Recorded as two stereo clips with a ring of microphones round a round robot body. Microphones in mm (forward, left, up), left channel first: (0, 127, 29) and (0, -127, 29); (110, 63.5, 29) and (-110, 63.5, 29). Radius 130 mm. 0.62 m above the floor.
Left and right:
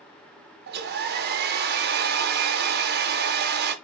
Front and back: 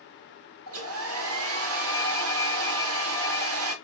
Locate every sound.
0.7 s a hair dryer: 140° right, 0.5 m